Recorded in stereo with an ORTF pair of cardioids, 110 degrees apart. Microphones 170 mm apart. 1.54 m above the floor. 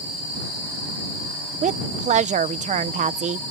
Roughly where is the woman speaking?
Ahead right.